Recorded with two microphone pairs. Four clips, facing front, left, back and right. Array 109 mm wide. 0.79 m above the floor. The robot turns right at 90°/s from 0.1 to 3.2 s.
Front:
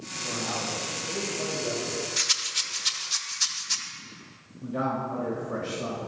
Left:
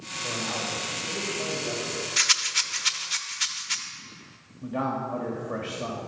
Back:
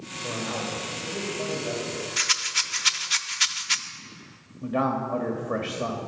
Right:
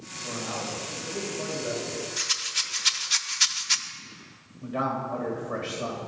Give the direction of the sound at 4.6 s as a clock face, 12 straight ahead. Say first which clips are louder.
Even, back 3 dB; 6 o'clock.